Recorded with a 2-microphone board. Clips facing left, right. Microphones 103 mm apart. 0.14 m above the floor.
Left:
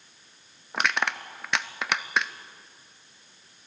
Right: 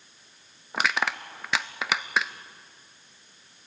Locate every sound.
0.7 s crushing: centre (ahead or behind), 0.7 m